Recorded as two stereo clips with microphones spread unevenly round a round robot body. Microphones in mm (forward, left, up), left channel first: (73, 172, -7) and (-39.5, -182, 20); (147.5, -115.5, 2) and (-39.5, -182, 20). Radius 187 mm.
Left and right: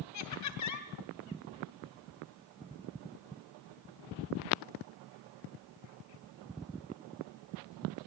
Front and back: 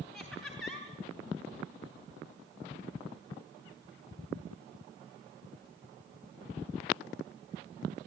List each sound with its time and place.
0.1 s laughter: 105° left, 2.5 m